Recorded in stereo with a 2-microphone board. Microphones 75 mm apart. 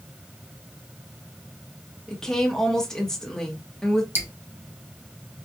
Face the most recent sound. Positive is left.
turn(degrees=-30)  # may be behind; listen again after turning